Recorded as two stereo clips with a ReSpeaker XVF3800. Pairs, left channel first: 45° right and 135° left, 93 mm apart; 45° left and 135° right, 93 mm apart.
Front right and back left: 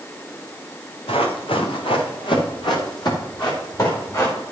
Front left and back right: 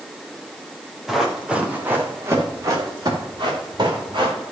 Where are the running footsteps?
45° right, 2.5 m; by 4.3 s 100° right, 4.5 m.